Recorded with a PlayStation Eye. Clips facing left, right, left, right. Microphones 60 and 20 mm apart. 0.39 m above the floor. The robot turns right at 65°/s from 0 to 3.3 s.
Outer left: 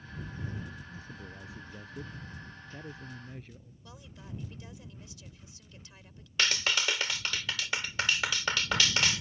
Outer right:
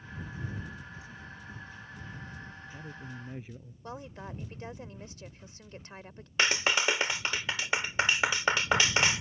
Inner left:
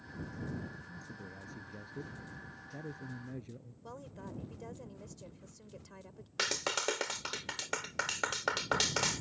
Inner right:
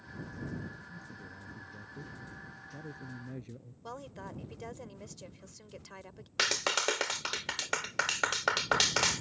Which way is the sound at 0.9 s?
35° left.